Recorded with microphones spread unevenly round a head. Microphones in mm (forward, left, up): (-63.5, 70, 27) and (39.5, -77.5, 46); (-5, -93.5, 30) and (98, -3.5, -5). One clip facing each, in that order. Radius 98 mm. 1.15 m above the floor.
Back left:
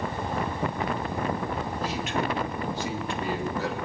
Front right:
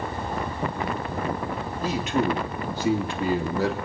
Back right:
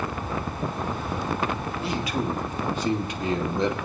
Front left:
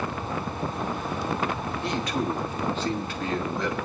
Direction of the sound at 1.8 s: 55° right.